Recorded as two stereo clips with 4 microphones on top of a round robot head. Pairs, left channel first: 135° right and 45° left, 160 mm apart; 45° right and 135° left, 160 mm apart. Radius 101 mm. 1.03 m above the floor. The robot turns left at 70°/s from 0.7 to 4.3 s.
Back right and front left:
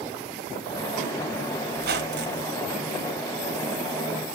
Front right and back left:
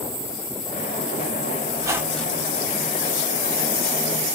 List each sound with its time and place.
1.8 s a squeak: 75° left, 1.4 m; by 2.5 s 20° left, 1.4 m